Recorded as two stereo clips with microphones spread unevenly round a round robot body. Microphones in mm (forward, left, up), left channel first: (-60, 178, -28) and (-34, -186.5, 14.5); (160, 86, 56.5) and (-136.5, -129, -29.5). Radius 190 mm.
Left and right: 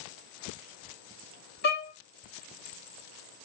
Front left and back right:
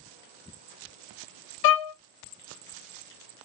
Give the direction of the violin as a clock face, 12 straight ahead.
10 o'clock.